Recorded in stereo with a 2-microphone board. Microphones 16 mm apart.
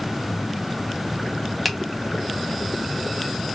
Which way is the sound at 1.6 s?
Centre (ahead or behind).